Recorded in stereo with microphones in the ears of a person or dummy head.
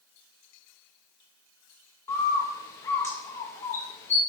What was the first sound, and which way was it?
A bird, 15° left (ahead or behind).